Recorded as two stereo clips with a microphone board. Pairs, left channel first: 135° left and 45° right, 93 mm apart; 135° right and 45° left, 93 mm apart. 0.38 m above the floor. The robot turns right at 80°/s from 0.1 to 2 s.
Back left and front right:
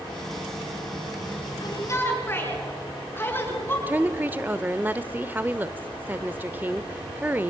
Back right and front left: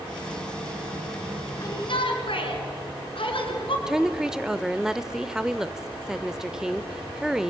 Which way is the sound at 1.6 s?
170° left.